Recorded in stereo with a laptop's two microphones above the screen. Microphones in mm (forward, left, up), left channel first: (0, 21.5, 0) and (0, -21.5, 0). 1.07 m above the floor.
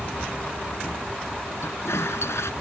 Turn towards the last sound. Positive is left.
turn(degrees=85)